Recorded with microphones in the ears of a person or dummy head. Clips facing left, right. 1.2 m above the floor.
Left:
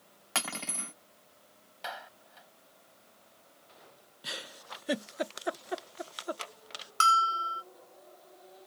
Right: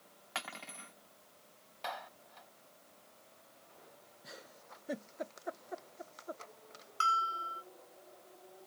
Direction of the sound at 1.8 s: 5° left (ahead or behind).